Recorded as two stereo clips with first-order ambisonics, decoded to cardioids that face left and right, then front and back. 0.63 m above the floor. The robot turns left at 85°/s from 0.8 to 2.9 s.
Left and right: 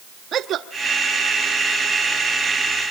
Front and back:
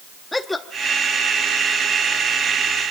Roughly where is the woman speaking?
Right.